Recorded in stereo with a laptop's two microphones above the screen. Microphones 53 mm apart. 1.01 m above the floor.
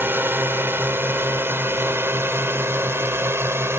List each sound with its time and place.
0.0 s a drone: 45° right (ahead or behind); by 3.8 s 55° right (ahead or behind)